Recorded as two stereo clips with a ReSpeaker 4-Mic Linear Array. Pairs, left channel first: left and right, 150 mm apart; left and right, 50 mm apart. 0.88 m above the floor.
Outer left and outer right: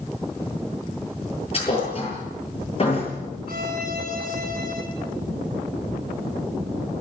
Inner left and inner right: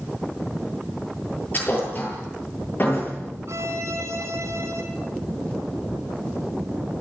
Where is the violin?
75° right (ahead or behind), 4 m.